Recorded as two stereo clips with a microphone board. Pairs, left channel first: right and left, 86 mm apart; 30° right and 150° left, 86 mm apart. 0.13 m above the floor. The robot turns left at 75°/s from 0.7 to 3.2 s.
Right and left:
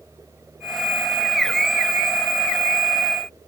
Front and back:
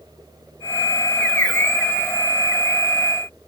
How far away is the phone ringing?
No phone ringing in this recording.